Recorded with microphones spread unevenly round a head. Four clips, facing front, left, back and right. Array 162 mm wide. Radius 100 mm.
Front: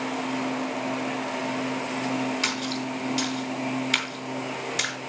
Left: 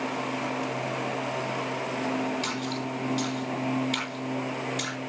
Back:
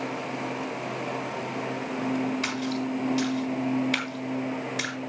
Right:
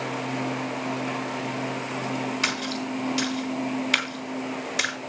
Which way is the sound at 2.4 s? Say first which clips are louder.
Right 2 dB, back 1 dB; 60° right.